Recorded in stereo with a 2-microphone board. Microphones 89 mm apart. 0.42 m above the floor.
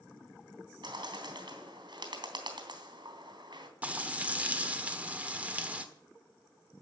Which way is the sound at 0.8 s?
55° right (ahead or behind).